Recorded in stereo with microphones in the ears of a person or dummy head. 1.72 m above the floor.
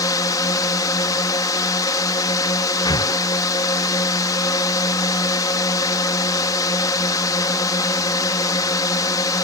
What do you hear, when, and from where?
0.0 s a drone: 20° left (ahead or behind)
2.9 s breathing: 15° left (ahead or behind)